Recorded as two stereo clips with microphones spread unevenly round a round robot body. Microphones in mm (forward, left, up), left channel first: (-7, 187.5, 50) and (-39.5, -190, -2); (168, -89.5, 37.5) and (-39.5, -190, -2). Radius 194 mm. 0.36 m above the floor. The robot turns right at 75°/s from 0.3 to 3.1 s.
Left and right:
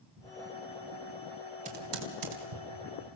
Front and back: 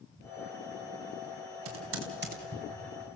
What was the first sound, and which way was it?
Typing on a keyboard, 165° right.